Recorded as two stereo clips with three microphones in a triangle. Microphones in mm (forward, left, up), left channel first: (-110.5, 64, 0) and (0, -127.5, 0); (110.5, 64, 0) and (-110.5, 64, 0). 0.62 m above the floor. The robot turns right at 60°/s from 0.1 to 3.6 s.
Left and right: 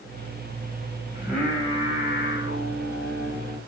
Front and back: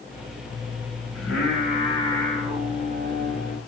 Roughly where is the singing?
Ahead.